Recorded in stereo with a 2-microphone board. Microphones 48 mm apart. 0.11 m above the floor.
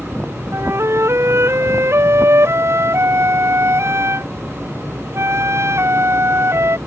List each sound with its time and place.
0.5 s a flute: 60° right (ahead or behind)